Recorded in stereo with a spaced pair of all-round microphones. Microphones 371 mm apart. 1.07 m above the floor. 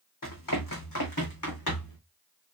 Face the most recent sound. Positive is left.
turn(degrees=65)  # may be behind; listen again after turning